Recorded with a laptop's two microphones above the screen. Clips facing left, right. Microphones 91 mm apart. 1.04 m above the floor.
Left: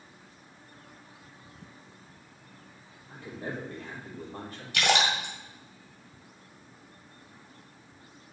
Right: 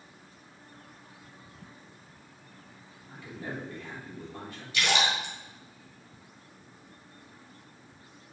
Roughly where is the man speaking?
Left.